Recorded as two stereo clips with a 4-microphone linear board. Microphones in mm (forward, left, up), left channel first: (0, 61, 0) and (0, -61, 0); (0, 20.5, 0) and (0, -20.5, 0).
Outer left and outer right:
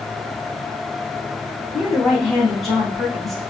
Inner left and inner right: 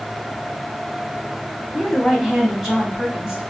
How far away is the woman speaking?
About 3 m.